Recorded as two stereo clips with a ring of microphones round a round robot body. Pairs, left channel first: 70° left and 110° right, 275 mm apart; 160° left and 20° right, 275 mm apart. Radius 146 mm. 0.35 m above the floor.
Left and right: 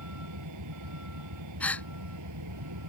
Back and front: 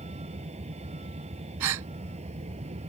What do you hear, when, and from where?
0.0 s a vehicle: 90° right
1.6 s a gasp: 15° right